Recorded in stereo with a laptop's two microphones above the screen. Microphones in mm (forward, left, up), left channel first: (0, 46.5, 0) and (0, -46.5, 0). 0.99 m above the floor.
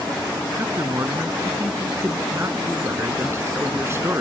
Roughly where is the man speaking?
Right.